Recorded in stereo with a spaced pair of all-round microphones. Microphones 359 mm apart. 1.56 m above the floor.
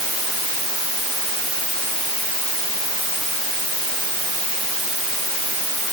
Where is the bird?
No bird in this recording.